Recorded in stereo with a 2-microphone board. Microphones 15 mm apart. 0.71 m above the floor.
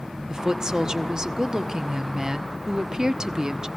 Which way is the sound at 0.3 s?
45° right (ahead or behind).